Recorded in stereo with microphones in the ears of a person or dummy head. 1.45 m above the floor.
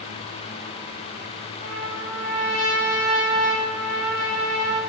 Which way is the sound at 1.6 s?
60° left (ahead or behind).